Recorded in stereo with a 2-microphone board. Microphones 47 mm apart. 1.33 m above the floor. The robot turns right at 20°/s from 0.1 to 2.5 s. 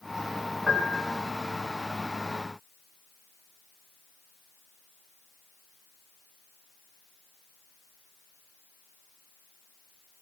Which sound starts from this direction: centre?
A piano, at 0.7 s.